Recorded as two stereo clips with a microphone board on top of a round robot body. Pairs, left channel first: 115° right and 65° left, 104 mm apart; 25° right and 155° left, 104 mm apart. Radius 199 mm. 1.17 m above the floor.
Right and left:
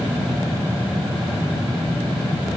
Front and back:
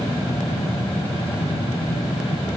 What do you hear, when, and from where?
Only background noise.